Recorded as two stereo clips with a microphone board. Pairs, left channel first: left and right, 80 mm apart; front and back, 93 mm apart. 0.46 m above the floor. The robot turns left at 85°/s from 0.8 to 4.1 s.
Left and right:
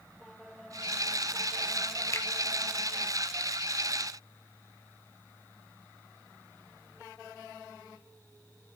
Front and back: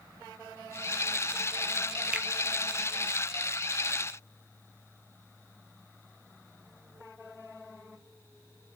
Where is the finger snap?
110° left, 0.9 m; by 2.3 s 95° left, 0.9 m.